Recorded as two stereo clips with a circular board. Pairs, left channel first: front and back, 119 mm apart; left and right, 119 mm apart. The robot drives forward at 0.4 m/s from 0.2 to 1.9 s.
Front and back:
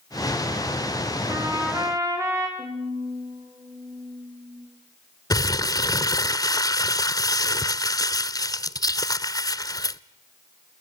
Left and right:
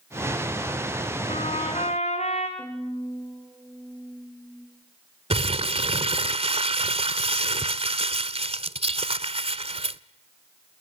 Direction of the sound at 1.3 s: 115° left.